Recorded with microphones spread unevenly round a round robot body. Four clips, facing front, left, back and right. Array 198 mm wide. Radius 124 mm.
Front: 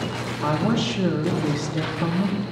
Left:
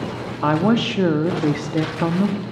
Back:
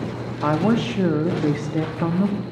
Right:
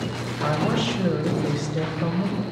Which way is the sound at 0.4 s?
115° left.